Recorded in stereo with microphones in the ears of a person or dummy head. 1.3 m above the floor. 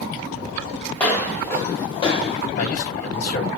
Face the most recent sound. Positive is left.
turn(degrees=55)  # may be behind; listen again after turning